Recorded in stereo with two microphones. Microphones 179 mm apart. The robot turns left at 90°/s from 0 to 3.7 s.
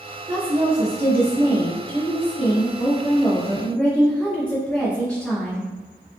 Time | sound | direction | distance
0.3 | a woman speaking | 45° right | 0.9 m